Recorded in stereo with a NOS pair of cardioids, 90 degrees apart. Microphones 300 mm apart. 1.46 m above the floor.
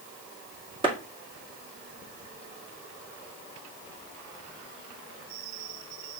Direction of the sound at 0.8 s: 15° right.